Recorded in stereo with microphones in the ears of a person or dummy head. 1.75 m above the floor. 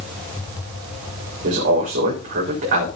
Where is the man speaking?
50° right (ahead or behind), 4 m.